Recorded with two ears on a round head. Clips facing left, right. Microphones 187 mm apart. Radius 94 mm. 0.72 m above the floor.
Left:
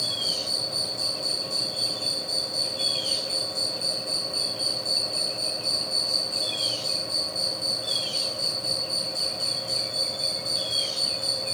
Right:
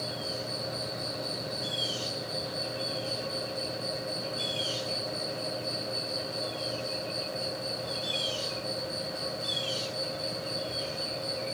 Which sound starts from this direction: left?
An insect, at 0.0 s.